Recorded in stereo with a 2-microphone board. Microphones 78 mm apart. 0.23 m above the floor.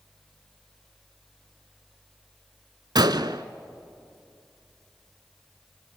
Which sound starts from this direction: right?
A gunshot, at 3.0 s.